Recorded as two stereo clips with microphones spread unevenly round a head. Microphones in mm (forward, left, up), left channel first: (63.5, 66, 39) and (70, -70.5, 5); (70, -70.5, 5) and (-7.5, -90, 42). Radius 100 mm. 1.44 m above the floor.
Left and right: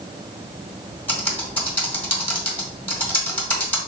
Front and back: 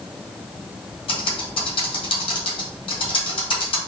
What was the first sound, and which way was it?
Typing on a keyboard, 15° left.